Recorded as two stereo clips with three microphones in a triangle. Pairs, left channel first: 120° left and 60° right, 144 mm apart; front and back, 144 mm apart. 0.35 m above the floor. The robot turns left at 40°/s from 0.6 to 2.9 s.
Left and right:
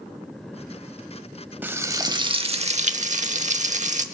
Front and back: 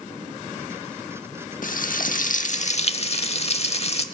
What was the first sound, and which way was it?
Frying, 15° left.